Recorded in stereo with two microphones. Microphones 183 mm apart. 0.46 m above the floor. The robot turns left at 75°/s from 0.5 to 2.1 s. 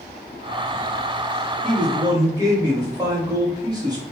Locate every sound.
1.6 s a man speaking: 120° right, 1.3 m; by 4.0 s 155° right, 1.3 m